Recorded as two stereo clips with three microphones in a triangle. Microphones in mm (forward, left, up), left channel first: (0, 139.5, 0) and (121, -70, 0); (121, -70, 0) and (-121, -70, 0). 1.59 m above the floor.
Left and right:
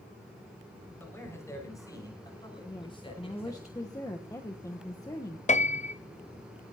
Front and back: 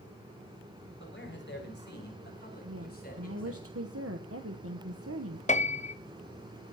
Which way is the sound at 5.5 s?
55° left.